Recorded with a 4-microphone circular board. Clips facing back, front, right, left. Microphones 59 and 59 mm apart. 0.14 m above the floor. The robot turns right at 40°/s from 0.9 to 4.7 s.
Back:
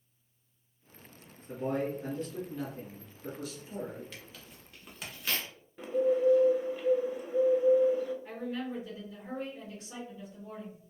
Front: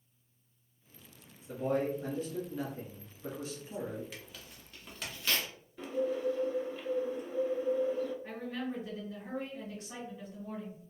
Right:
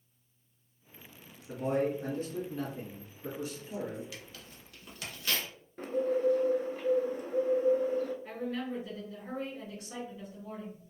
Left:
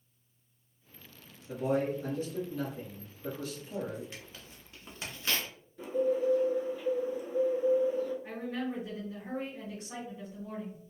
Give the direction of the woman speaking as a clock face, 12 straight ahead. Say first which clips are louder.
Back 1 dB, even; 11 o'clock.